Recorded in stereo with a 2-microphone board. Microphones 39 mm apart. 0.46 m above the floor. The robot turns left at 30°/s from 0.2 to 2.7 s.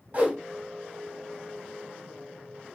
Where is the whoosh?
35° right (ahead or behind), 0.9 m.